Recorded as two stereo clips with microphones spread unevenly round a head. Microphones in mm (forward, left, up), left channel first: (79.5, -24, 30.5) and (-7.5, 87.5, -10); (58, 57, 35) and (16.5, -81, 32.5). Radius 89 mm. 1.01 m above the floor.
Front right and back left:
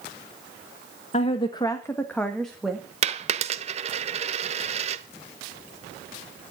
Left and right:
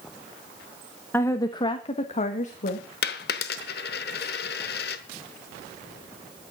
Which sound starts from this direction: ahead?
A woman speaking, at 1.1 s.